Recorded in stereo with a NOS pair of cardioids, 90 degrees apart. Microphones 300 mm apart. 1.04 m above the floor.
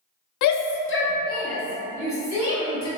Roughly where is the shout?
Left.